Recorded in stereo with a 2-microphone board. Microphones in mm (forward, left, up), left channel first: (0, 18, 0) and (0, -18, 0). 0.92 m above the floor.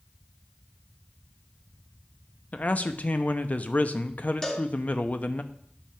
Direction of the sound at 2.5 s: 45° left (ahead or behind).